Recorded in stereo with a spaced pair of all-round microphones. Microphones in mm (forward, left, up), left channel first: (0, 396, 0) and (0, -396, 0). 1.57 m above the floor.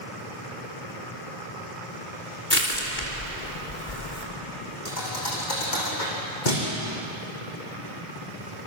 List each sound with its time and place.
2.5 s crushing: 75° left (ahead or behind), 4 m
4.8 s a thud: 70° left (ahead or behind), 6.5 m